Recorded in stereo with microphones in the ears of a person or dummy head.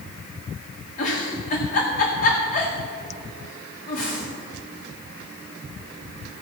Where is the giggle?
50° left (ahead or behind), 1.7 m.